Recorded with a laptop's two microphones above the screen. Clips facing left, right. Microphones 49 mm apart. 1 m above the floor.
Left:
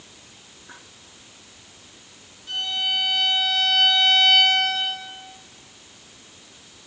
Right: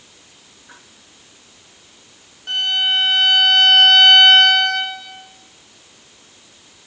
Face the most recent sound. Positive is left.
turn(degrees=-60)  # may be behind; listen again after turning